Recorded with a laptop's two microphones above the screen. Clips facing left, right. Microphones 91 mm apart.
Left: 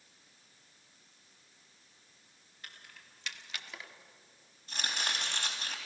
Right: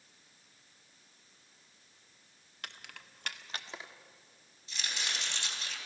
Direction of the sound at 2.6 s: 75° right (ahead or behind).